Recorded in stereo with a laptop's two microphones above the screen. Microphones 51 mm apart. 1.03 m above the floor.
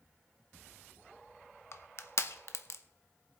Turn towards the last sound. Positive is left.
turn(degrees=60)  # may be behind; listen again after turning